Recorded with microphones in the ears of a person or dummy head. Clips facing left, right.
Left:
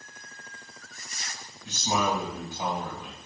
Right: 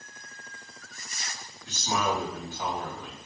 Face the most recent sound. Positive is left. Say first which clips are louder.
# left 1 dB
turn(degrees=25)  # may be behind; listen again after turning